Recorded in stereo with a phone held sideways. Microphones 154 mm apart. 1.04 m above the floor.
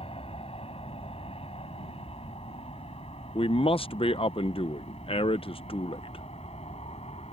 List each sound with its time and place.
0.0 s an aircraft: 40° left (ahead or behind)
3.4 s a man speaking: 35° left (ahead or behind)